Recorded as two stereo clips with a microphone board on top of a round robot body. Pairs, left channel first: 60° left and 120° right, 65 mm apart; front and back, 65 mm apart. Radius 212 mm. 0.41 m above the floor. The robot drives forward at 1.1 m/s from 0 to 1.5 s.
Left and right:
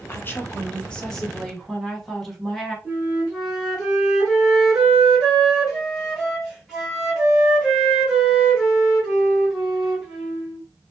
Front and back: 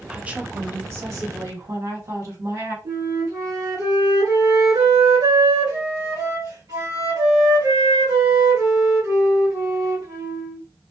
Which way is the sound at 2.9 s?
160° left.